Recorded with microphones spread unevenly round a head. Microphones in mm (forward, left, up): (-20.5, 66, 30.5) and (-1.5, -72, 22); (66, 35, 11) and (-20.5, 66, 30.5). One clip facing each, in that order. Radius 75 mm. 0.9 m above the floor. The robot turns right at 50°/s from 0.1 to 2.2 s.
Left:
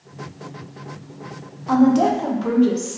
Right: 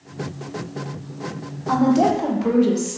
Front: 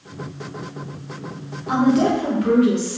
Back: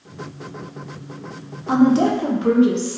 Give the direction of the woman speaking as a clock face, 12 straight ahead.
6 o'clock.